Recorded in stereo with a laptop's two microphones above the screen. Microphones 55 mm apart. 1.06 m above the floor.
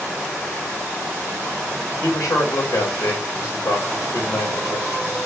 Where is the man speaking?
75° left (ahead or behind), 4 m.